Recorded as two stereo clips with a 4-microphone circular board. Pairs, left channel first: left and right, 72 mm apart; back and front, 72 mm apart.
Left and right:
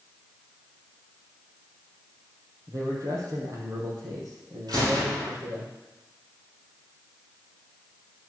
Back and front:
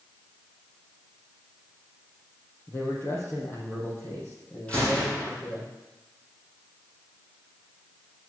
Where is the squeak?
No squeak in this recording.